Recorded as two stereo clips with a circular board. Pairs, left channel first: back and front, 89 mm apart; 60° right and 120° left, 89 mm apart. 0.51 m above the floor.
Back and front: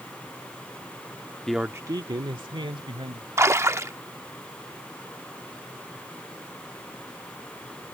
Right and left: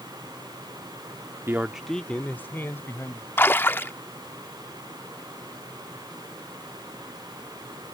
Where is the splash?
25° right.